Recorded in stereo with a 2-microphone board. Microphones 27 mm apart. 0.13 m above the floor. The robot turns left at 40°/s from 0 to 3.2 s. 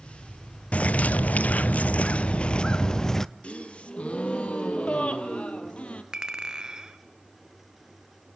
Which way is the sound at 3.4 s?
50° left (ahead or behind).